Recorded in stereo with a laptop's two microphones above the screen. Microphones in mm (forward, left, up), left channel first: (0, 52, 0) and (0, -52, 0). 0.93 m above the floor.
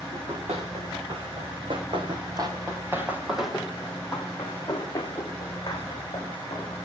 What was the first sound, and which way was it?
Running footsteps, 70° right (ahead or behind).